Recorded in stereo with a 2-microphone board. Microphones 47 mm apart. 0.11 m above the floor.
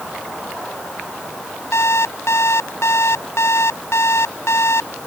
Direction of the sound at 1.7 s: 80° left.